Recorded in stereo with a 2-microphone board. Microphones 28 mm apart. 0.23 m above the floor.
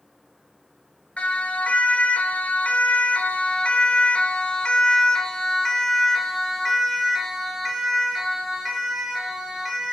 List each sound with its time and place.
1.2 s a siren: 60° left (ahead or behind), 4.5 m; by 9.9 s 10° right (ahead or behind), 8 m